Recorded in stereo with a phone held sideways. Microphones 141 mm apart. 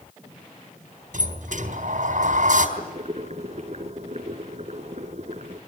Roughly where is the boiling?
Right.